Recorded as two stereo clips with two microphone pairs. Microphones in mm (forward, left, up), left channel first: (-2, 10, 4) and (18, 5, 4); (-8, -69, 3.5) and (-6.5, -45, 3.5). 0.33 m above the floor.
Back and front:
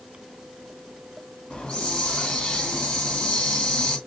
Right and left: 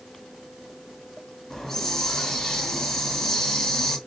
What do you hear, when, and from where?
1.5 s a hiss: 165° right, 2 m